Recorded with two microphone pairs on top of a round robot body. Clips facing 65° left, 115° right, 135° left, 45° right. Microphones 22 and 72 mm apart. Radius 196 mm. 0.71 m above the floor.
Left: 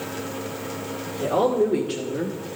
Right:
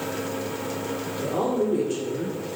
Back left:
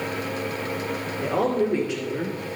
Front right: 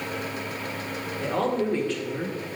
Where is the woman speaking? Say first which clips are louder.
Left 5 dB, back left 3 dB; 65° left, 3 m; by 2.4 s 55° left, 1.2 m.